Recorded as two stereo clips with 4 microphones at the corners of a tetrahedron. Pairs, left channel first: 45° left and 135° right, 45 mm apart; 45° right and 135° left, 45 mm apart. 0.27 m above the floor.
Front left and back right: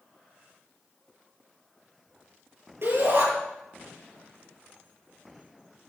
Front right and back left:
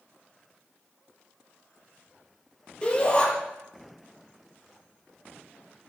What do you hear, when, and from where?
2.8 s a shout: 110° right, 8 m